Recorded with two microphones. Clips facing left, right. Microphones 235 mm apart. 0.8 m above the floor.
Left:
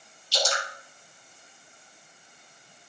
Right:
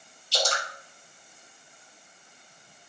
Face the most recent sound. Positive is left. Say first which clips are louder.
# even
turn(degrees=-60)  # may be behind; listen again after turning